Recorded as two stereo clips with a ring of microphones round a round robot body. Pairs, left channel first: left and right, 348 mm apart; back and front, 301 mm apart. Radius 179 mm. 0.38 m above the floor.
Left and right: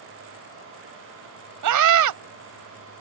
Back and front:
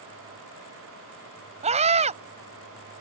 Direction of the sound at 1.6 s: 70° right.